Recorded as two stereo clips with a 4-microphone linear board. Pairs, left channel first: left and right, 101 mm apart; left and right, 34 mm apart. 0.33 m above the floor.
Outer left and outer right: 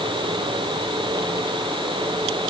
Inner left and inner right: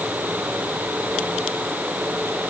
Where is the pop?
I don't hear a pop.